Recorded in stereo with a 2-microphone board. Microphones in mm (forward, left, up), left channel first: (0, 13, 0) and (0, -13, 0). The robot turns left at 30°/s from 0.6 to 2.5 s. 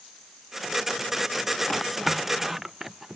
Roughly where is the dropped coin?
I don't hear a dropped coin.